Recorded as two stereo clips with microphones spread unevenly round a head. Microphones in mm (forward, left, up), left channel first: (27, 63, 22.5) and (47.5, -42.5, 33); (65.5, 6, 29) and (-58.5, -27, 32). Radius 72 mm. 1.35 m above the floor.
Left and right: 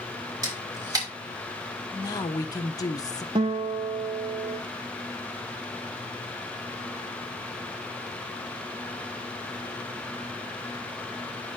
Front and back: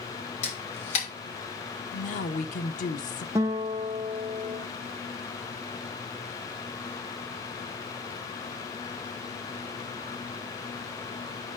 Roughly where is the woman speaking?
Ahead left.